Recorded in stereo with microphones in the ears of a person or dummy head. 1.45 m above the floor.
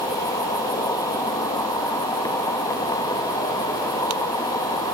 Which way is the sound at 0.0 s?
15° left (ahead or behind).